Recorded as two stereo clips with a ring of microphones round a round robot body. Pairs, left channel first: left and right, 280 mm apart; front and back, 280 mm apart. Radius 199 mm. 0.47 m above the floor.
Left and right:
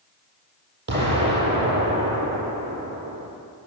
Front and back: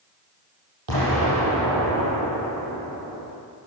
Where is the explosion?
140° right, 9 m.